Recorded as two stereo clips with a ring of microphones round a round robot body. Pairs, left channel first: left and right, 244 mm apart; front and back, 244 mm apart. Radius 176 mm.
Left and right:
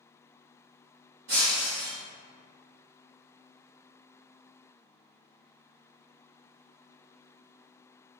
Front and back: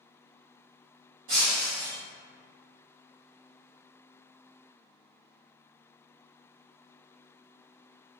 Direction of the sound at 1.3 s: 140° right.